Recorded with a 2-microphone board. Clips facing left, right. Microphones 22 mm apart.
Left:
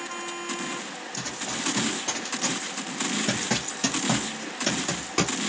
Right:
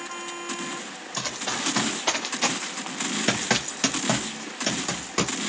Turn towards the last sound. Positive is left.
turn(degrees=0)  # may be behind; listen again after turning